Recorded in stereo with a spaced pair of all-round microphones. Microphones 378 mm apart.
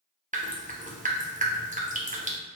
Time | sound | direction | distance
0.3 | dripping | 20° right (ahead or behind) | 0.5 m